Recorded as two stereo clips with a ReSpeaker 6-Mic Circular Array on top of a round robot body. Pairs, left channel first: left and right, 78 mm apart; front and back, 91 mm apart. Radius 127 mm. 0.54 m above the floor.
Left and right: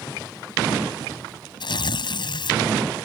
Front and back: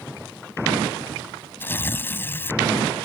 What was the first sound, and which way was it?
Tearing paper, 70° left.